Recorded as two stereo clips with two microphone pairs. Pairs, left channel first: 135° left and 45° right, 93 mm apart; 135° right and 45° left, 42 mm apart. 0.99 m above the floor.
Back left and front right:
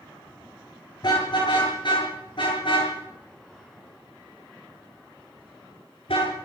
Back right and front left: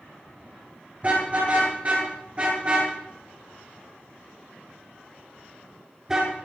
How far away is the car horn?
About 8 m.